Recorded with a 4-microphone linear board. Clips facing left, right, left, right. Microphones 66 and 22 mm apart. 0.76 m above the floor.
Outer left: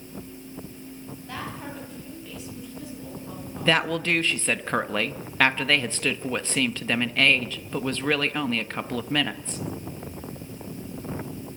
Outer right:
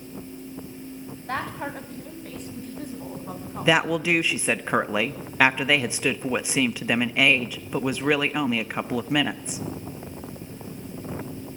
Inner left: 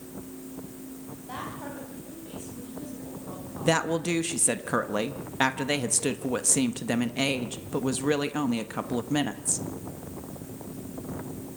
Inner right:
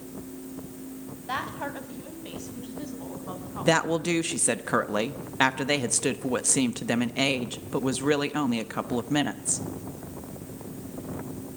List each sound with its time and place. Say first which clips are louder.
1.3 s a woman speaking: outer right 6 dB, inner right 6 dB; 50° right (ahead or behind), 4 m
3.6 s a woman speaking: outer right 2 dB, inner right 2 dB; 15° right (ahead or behind), 1.0 m